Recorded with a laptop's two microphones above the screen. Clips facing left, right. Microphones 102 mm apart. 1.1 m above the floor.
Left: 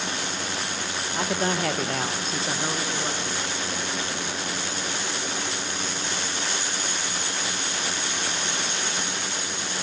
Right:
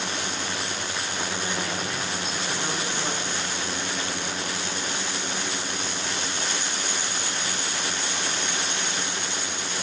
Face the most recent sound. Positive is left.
turn(degrees=-5)  # may be behind; listen again after turning